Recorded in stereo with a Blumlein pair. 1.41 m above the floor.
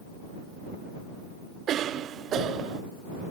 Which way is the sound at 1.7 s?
30° right.